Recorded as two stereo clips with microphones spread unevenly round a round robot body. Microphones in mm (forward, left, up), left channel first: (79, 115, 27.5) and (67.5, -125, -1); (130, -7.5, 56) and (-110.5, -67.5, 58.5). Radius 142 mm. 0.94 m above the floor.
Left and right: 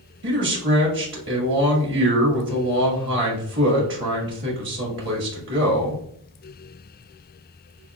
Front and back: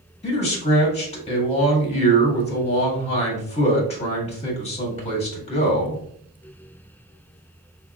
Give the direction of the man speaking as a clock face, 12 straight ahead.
2 o'clock.